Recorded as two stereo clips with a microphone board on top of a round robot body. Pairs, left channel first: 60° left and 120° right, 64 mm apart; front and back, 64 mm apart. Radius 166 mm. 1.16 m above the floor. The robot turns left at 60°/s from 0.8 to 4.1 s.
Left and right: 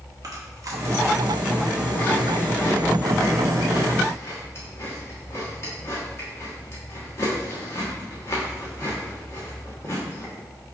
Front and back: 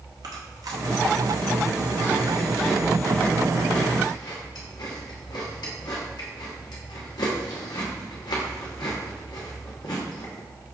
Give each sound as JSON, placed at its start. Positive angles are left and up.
{"t": 0.2, "sound": "chewing", "azimuth_deg": -155, "distance_m": 1.0}